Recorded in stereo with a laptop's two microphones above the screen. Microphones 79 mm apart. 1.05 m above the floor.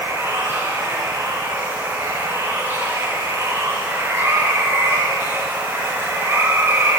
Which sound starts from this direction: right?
Running water, at 0.0 s.